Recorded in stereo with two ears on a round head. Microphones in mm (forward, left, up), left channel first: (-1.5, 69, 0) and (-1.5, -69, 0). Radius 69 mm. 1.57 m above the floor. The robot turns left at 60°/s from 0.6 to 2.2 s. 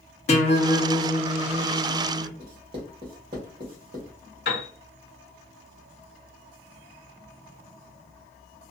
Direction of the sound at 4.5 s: 70° left (ahead or behind).